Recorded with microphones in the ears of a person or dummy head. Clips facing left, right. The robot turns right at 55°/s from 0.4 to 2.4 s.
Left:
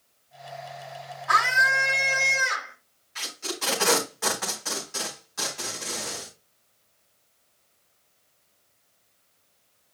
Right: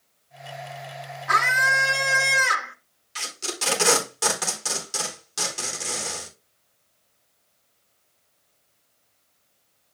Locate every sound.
1.3 s a scream: 135° right, 2.5 m; by 2.8 s 75° right, 2.5 m
3.1 s tape being pulled: 45° right (ahead or behind), 4 m